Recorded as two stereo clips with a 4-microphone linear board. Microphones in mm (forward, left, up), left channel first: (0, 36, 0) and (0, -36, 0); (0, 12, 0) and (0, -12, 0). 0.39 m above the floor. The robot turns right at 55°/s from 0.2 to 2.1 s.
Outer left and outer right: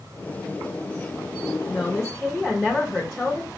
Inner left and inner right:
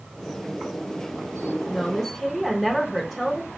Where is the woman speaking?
15° left (ahead or behind), 0.9 m; by 3.5 s 5° left (ahead or behind), 0.9 m.